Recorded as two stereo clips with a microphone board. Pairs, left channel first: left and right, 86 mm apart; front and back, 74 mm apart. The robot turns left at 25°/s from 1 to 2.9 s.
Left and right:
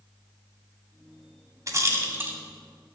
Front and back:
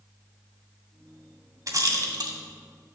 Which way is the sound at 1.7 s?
140° right.